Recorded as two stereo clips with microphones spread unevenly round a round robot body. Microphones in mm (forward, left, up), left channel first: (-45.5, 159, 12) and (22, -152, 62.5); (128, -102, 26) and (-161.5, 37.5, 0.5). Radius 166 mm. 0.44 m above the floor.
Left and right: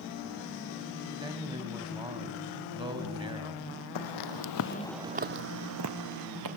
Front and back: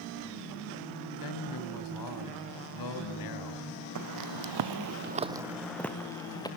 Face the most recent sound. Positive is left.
turn(degrees=-105)